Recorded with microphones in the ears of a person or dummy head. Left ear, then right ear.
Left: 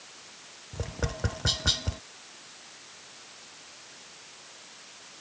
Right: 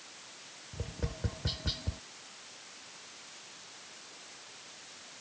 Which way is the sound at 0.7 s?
45° left (ahead or behind).